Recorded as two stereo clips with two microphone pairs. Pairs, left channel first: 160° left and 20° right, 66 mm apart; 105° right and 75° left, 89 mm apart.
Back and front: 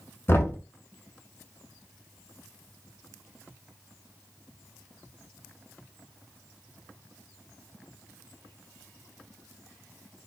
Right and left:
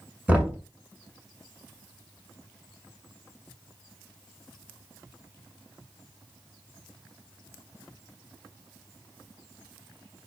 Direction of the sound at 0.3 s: 140° left.